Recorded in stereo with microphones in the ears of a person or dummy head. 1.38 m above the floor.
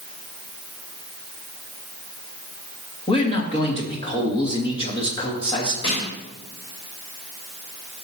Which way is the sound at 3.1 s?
20° left (ahead or behind).